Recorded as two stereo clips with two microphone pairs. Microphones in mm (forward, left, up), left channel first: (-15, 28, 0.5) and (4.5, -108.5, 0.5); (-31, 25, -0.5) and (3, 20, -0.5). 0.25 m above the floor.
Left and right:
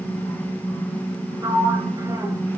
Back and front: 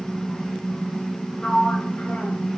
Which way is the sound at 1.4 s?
145° right.